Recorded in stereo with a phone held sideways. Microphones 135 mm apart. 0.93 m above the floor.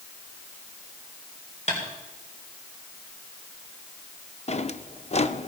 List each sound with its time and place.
1.7 s tapping: 55° left (ahead or behind), 4 m
4.5 s a drawer: 50° left (ahead or behind), 0.6 m